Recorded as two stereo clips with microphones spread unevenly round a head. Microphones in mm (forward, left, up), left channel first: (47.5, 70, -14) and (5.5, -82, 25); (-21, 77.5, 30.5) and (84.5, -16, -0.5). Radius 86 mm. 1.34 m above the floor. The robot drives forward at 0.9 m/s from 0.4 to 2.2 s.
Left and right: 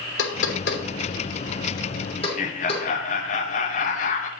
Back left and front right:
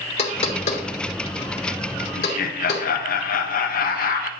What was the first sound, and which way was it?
Knocking, 100° left.